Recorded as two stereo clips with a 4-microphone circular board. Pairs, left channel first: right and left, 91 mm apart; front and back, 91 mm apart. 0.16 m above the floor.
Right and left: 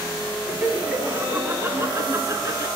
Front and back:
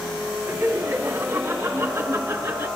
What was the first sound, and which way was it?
Laughter, 160° left.